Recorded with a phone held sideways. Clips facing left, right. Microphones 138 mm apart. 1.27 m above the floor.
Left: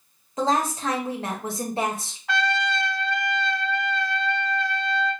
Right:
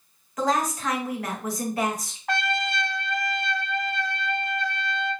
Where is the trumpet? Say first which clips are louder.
Left 2 dB; 50° right (ahead or behind), 0.6 m.